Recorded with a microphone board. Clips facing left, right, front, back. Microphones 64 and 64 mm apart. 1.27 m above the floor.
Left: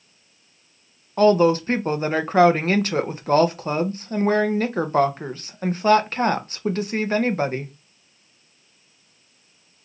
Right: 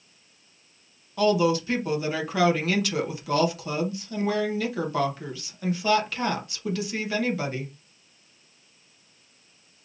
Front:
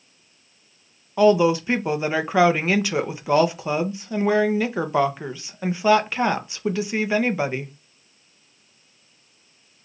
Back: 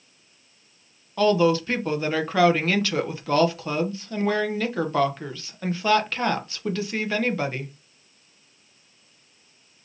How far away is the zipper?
No zipper in this recording.